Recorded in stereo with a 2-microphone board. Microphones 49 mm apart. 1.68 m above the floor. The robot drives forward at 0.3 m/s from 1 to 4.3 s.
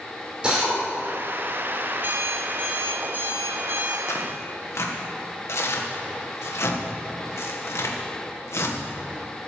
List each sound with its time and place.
0.4 s a drill: 20° right (ahead or behind), 5 m
1.9 s an alarm clock: 45° right (ahead or behind), 2 m; by 4.0 s 40° right (ahead or behind), 2.5 m
4.1 s tearing paper: 65° left (ahead or behind), 1.6 m